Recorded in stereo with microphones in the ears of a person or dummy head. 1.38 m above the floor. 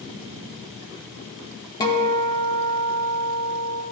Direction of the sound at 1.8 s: 15° left (ahead or behind).